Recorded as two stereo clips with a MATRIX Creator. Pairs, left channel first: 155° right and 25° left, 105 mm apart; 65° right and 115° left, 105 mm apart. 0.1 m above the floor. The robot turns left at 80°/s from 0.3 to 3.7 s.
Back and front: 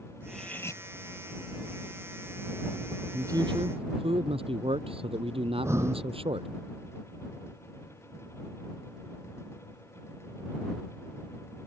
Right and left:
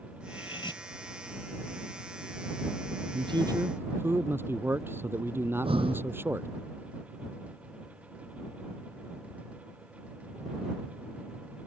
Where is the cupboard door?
I don't hear a cupboard door.